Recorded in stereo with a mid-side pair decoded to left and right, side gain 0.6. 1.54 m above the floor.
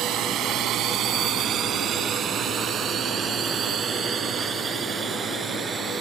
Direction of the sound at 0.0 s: 55° right.